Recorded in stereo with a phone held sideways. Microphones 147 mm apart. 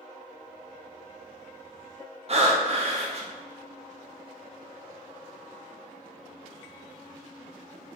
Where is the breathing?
45° right (ahead or behind), 0.6 m.